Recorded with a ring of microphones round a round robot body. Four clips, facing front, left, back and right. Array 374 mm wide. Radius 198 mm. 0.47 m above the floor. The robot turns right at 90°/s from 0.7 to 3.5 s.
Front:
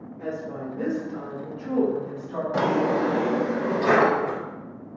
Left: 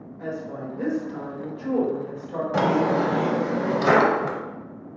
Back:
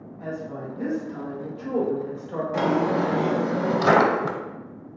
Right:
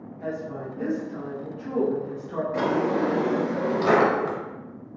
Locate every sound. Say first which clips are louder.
0.2 s a woman speaking: even, front 1 dB; 55° left, 1.9 m; by 2.4 s 150° right, 1.9 m
2.5 s a drawer: left 3 dB, even; 70° left, 0.6 m; by 4.4 s 155° left, 0.6 m